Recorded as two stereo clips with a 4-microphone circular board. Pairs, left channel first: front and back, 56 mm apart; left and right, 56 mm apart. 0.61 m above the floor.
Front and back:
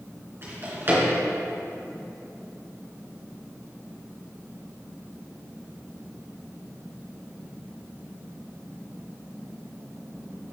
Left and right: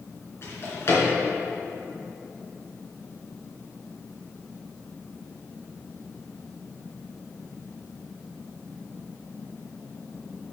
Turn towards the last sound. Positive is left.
turn(degrees=130)